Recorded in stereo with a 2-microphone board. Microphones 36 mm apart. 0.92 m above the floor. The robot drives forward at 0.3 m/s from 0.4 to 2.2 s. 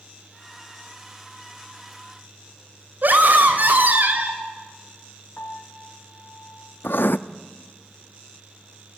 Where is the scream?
60° right (ahead or behind), 4 m.